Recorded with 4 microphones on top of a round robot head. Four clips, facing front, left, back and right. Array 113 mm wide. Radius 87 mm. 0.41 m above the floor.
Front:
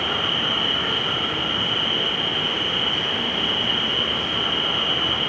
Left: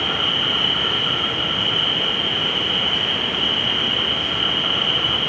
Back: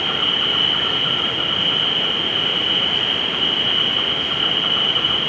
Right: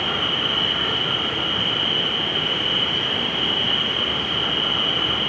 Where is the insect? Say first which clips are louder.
Left 1 dB, back 1 dB; 155° right, 2 m.